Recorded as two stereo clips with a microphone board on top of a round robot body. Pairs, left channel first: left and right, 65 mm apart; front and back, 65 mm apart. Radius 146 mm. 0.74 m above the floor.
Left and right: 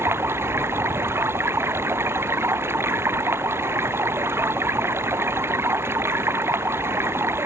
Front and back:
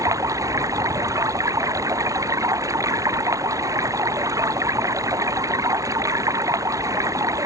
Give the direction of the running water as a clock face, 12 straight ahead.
5 o'clock.